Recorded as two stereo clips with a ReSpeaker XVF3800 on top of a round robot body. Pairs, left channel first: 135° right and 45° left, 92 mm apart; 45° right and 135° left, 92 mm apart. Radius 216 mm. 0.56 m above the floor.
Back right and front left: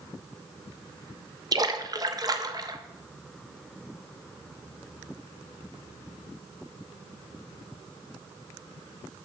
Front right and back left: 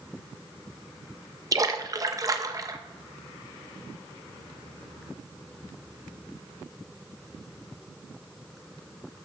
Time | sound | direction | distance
1.5 | a splash | 85° left | 1.0 m